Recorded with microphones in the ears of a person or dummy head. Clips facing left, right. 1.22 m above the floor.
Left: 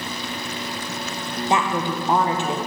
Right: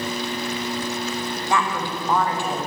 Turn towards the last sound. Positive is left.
turn(degrees=15)  # may be behind; listen again after turning